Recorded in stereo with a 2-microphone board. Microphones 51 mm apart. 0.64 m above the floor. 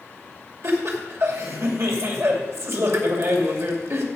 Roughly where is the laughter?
Right.